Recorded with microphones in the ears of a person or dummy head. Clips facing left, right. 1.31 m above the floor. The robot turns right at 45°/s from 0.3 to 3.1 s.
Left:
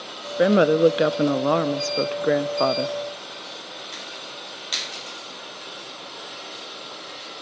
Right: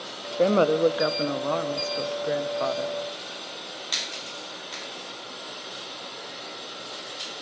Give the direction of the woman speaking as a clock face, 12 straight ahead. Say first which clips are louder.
Left 4 dB; 11 o'clock.